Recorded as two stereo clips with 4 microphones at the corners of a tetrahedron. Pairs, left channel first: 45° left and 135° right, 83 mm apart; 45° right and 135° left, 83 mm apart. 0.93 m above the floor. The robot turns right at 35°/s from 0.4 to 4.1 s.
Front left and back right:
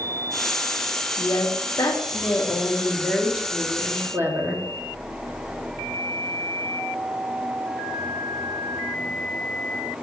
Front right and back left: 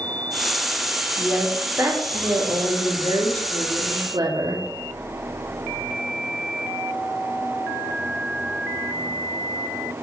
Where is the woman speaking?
65° left, 2 m; by 4.6 s 165° left, 2 m.